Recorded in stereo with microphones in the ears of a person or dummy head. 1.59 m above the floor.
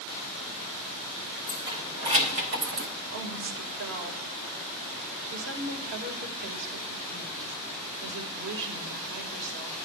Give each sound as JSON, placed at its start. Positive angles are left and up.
{"t": 1.5, "sound": "keys jangling", "side_deg": -20, "distance_m": 2.0}
{"t": 3.1, "sound": "a woman speaking", "side_deg": -70, "distance_m": 1.9}